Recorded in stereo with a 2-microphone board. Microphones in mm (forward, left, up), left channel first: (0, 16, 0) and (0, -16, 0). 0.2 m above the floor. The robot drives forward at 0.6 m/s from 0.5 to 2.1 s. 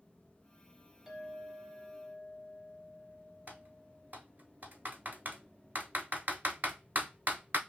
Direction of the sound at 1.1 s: 20° right (ahead or behind).